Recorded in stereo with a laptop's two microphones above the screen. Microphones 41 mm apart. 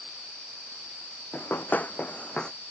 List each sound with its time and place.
1.3 s running footsteps: 55° left (ahead or behind); by 2.5 s 20° left (ahead or behind)